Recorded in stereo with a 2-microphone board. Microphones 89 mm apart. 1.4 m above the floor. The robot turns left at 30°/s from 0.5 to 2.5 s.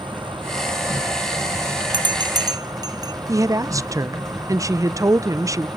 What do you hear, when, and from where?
0.0 s an insect: 70° right, 2 m; by 5.8 s 130° right, 2 m
1.9 s a bell: 60° right (ahead or behind), 1.0 m; by 3.1 s 45° right (ahead or behind), 1.0 m
3.3 s a woman speaking: 35° right (ahead or behind), 0.6 m